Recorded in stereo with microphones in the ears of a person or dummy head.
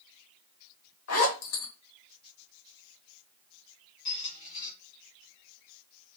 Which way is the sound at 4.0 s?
35° left (ahead or behind).